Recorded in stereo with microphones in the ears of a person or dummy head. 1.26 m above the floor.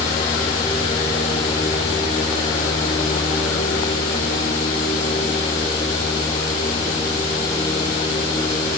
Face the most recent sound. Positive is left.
No sound to turn to.